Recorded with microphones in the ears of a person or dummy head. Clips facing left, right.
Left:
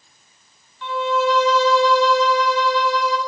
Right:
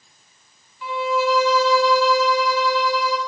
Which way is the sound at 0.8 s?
Centre (ahead or behind).